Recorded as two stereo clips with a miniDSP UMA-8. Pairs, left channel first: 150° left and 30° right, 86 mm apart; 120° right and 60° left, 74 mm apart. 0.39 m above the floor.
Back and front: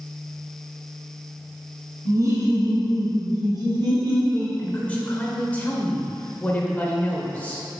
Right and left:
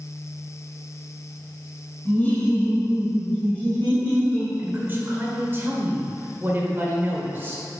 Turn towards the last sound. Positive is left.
turn(degrees=90)